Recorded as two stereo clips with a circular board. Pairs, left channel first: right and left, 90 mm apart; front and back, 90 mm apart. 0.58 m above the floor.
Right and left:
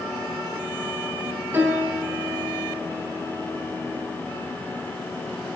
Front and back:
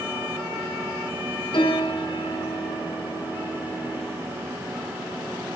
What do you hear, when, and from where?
1.5 s a piano: 20° left, 5 m